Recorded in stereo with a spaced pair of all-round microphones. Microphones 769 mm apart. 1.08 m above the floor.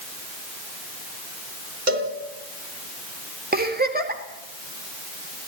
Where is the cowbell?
75° right (ahead or behind), 3.5 m.